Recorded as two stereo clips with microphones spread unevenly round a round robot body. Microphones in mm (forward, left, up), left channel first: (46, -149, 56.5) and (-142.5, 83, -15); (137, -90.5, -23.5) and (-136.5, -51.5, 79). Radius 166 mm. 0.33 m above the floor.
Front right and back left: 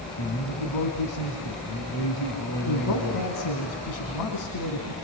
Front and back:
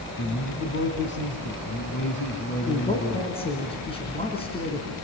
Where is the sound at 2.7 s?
70° right, 4 m.